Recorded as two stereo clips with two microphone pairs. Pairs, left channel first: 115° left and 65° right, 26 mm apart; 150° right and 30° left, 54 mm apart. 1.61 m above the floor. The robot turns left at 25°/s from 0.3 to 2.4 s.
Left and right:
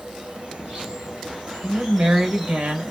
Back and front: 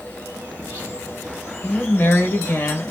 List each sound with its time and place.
0.0 s an insect: 95° right, 2 m; by 2.9 s 150° right, 2 m
1.6 s a woman speaking: 85° right, 1.4 m; by 2.9 s 105° right, 1.4 m